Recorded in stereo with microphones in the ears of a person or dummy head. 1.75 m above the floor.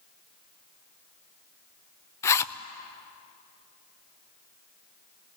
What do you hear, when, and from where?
2.2 s a zipper: 20° left (ahead or behind), 0.7 m